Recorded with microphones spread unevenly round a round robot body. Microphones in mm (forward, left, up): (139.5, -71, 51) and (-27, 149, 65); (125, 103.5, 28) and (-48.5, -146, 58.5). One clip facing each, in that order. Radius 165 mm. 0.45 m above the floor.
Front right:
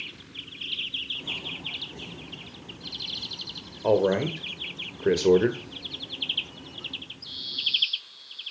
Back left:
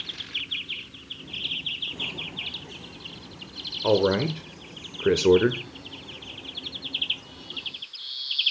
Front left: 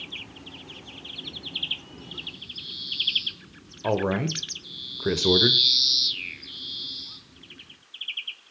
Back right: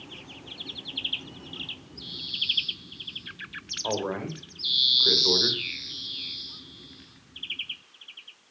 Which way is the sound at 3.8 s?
50° left.